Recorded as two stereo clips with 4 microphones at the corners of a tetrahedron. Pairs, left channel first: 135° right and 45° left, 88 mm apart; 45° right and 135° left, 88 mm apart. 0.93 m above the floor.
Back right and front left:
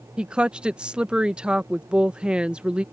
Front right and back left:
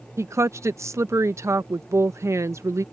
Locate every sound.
0.2 s a woman speaking: 115° left